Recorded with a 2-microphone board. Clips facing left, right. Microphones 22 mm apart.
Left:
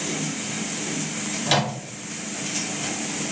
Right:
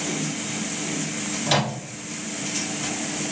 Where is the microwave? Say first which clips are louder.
Left 1 dB; 10° left (ahead or behind), 1.9 m.